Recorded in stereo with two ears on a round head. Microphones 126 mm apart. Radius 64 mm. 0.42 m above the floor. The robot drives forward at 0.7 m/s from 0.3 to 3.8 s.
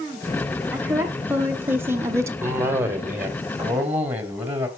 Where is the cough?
20° right (ahead or behind), 2 m; by 4.7 s 15° right (ahead or behind), 3 m.